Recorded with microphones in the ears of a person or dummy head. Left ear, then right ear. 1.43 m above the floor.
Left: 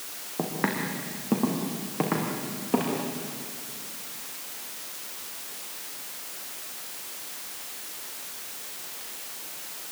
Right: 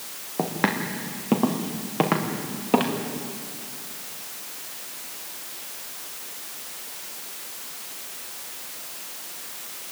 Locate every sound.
0.4 s footsteps: 25° right (ahead or behind), 4 m; by 3.0 s 45° right (ahead or behind), 5 m